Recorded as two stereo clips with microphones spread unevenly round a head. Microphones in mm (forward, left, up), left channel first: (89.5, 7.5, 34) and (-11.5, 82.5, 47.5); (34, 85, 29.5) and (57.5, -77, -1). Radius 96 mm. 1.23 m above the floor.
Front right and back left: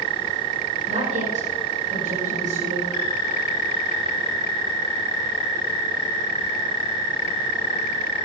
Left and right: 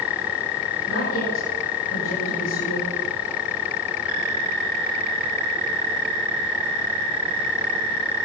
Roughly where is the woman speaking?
Behind left.